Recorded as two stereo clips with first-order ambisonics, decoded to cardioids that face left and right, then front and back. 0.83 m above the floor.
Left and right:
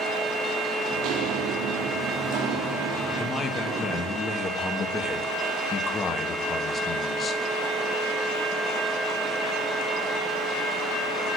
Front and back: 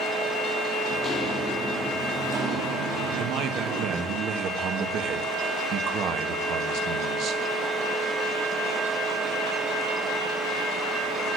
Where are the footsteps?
55° right, 1.4 m; by 4.2 s 150° right, 3 m.